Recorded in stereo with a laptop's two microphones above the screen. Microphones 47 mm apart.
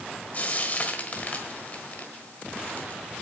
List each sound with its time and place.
0.3 s frying: 35° left (ahead or behind), 1.4 m